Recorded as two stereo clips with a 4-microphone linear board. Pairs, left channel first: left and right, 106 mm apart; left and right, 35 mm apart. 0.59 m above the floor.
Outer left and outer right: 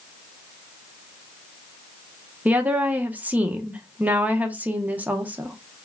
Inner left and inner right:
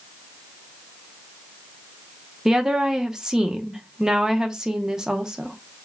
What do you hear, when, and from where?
2.5 s a woman speaking: 15° right (ahead or behind), 0.8 m